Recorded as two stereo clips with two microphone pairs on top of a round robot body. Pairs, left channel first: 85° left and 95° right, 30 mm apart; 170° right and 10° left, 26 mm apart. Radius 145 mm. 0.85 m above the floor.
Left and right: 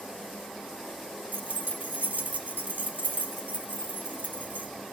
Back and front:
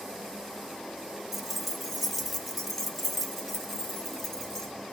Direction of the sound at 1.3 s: 70° right.